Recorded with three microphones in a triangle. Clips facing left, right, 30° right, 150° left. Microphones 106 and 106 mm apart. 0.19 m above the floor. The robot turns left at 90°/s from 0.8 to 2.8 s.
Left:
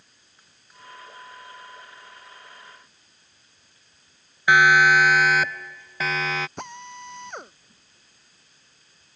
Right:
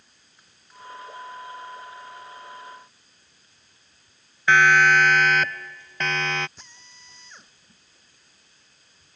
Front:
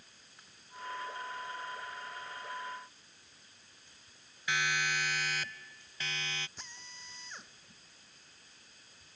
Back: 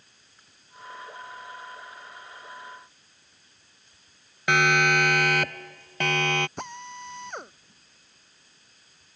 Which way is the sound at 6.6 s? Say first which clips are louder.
Left 17 dB, back 17 dB; 120° left.